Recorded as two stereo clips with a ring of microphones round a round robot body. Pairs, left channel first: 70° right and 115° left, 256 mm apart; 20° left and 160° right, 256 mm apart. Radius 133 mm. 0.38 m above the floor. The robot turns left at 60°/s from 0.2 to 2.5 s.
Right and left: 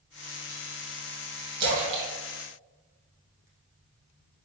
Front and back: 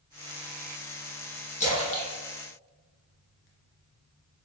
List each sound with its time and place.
1.6 s a splash: 85° left, 1.1 m; by 3.5 s 35° left, 1.1 m